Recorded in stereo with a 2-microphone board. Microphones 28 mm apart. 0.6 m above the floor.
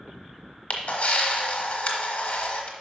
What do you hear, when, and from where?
0.7 s a camera shutter: 50° left (ahead or behind), 1.2 m